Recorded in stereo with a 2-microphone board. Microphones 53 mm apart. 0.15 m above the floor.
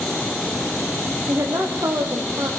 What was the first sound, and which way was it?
A woman speaking, 80° right.